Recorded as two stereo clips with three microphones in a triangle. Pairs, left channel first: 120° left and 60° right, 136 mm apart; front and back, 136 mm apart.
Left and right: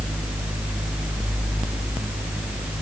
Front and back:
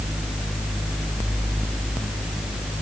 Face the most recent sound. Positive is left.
No sound to turn to.